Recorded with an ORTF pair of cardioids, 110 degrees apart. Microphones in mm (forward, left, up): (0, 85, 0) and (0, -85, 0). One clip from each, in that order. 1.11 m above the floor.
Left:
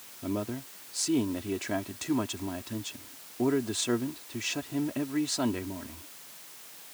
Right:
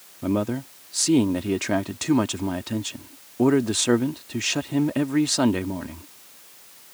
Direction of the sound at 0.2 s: 50° right.